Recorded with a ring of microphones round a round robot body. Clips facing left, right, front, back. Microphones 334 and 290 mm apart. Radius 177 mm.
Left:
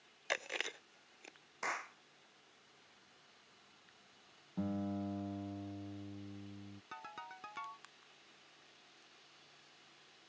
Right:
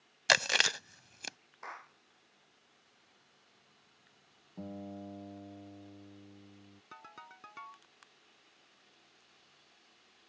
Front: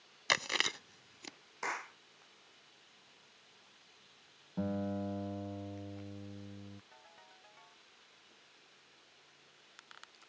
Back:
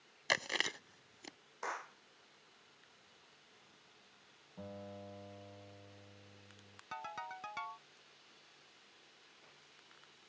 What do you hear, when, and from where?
0.3 s chewing: 80° right
1.6 s a clap: 50° left
4.6 s a guitar: 25° left
6.9 s a ringtone: straight behind